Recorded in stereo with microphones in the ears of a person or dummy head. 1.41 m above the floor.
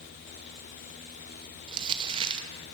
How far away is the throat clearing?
No throat clearing in this recording.